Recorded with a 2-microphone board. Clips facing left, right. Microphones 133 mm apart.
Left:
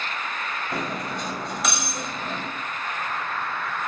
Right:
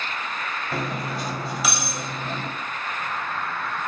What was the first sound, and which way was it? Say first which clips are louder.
Cutlery clinking: right 2 dB; 5° right (ahead or behind).